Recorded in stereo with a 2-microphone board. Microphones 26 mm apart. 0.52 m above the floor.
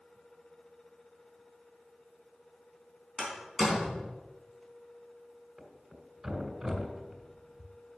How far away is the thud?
About 1.9 m.